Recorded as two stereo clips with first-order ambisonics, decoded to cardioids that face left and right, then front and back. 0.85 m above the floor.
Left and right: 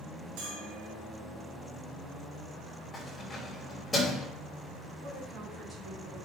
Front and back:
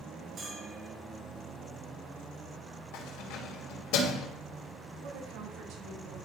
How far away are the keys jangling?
About 3 m.